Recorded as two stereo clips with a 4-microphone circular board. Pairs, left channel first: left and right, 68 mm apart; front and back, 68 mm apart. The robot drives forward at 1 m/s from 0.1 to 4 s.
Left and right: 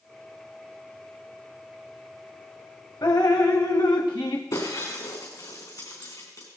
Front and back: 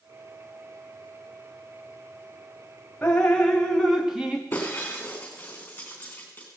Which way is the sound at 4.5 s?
65° left.